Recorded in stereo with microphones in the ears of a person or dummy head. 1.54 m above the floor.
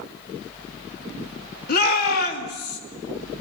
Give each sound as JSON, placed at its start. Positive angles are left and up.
{"t": 1.7, "sound": "a shout", "side_deg": 50, "distance_m": 2.5}